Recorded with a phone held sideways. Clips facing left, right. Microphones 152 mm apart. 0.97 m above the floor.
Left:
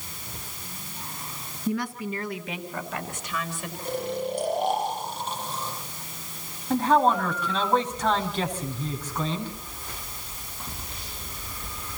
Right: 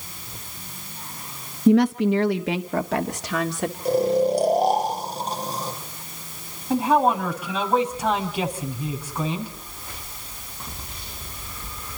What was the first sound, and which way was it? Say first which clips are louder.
A woman speaking: right 12 dB; 70° right (ahead or behind).